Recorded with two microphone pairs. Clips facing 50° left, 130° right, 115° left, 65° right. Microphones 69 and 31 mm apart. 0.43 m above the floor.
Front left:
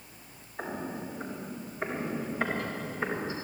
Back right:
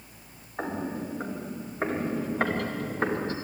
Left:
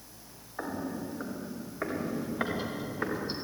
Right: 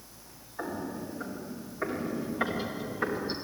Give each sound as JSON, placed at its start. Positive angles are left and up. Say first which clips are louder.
{"t": 0.6, "sound": "footsteps", "louder": "back right 4 dB, even", "azimuth_deg": -175, "distance_m": 5.5}